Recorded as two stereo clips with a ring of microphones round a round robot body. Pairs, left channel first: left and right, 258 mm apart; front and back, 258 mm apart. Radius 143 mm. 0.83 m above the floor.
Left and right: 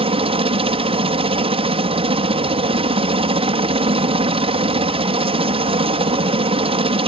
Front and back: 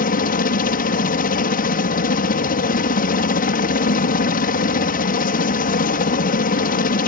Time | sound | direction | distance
0.0 | a helicopter | 35° right | ?